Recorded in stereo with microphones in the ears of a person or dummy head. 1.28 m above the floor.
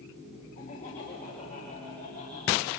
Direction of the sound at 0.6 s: 50° left (ahead or behind).